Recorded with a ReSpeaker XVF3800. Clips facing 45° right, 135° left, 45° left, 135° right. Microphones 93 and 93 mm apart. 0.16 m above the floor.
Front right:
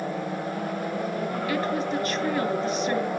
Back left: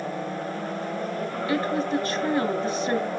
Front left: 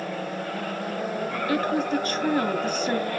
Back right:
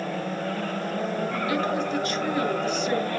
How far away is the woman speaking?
About 2 m.